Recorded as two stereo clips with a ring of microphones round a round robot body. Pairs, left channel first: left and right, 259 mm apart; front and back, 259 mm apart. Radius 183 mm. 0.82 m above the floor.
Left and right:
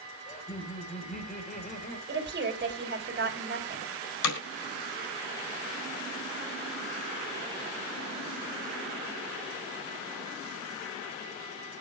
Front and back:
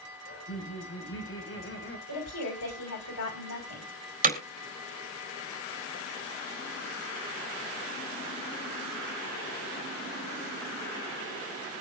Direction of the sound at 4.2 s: 125° left.